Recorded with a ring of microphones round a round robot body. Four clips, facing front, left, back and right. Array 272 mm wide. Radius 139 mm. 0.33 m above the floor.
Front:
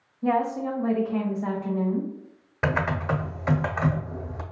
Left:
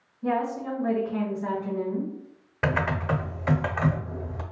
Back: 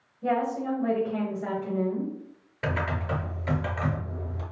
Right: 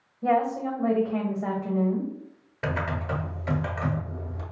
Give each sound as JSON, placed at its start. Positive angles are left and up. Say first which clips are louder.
{"t": 0.2, "sound": "a woman speaking", "louder": "right 3 dB, front 2 dB", "azimuth_deg": -100, "distance_m": 1.8}
{"t": 2.6, "sound": "typing on a keyboard", "louder": "left 3 dB, front 4 dB", "azimuth_deg": 35, "distance_m": 0.6}